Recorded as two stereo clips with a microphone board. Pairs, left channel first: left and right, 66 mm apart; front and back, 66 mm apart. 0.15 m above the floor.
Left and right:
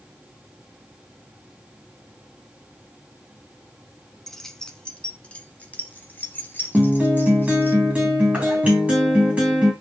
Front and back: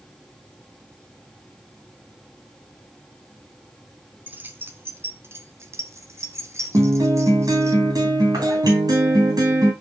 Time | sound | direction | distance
4.3 | keys jangling | 175° left | 1.0 m
6.7 | a guitar | 160° right | 3 m